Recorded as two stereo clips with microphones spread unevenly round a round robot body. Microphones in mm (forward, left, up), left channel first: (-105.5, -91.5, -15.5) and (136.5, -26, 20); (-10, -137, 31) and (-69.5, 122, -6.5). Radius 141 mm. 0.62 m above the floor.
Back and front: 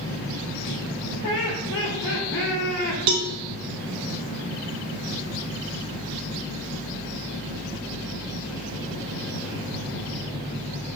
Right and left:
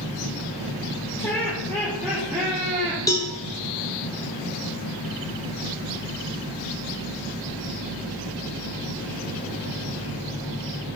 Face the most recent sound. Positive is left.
turn(degrees=5)